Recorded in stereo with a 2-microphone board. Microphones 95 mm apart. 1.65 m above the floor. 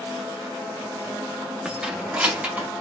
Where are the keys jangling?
10° right (ahead or behind), 1.8 m; by 2.7 s 20° right (ahead or behind), 2.5 m.